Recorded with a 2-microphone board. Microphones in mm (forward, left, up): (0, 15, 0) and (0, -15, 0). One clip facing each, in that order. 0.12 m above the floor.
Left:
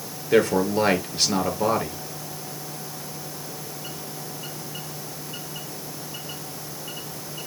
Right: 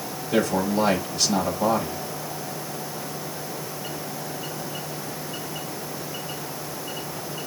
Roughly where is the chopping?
No chopping in this recording.